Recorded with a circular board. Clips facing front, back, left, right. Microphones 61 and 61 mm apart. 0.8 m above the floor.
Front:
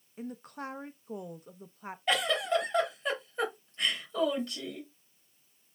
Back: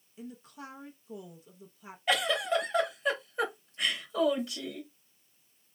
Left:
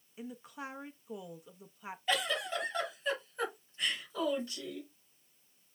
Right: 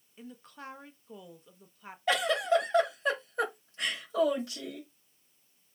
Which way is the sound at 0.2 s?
10° left.